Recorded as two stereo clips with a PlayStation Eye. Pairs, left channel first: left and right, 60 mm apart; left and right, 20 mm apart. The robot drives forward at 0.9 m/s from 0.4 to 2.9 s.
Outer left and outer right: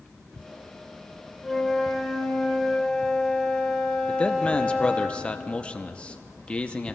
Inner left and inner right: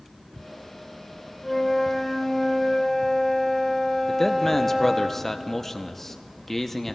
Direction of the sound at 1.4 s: 5° left (ahead or behind).